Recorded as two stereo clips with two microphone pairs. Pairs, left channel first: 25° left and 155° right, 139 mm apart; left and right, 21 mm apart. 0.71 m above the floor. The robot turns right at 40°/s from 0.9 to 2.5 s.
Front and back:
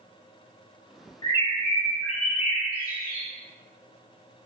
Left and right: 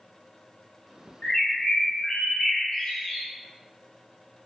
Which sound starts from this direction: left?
A bird, at 1.2 s.